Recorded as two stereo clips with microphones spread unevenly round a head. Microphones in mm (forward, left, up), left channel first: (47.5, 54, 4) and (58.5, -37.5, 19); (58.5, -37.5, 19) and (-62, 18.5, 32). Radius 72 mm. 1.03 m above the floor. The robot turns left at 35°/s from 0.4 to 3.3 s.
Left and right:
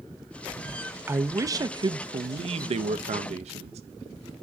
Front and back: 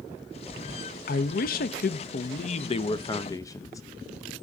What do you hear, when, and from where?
1.1 s a man speaking: 10° right, 0.6 m; by 3.8 s 90° right, 0.6 m